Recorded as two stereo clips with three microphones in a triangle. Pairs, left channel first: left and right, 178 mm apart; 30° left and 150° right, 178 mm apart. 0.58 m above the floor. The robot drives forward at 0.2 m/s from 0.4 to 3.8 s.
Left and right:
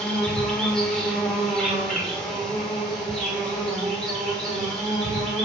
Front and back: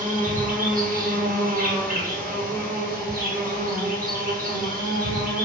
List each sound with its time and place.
0.0 s an insect: 175° left, 1.2 m; by 5.5 s straight behind, 1.8 m